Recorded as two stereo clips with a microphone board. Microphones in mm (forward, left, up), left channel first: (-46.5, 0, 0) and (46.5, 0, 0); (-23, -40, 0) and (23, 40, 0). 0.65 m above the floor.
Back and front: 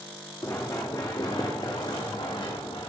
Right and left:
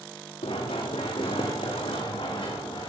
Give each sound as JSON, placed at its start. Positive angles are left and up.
{"t": 0.4, "sound": "running footsteps", "azimuth_deg": -125, "distance_m": 2.5}